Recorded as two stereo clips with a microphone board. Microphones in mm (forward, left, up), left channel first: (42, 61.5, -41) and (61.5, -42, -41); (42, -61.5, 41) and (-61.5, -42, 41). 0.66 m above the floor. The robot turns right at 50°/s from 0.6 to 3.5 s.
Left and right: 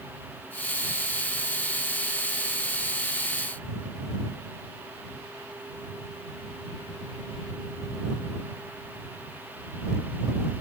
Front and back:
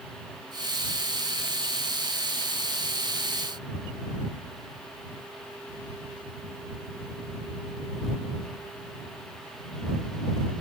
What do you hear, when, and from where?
Only background noise.